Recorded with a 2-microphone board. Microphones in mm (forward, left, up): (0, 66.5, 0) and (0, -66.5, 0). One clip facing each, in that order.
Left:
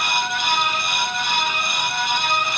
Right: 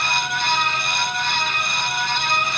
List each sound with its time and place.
Only background noise.